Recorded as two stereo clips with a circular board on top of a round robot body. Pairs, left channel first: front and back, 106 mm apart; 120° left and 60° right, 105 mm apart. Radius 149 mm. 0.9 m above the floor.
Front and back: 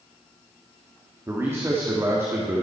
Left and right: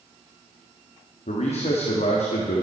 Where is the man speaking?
115° left, 2 m.